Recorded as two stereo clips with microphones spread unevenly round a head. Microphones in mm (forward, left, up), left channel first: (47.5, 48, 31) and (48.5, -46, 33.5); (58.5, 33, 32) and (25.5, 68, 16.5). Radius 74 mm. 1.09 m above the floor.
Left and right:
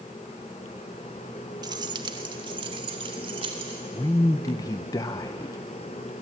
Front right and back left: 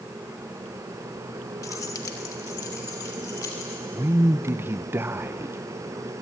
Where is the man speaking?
140° left, 0.6 m.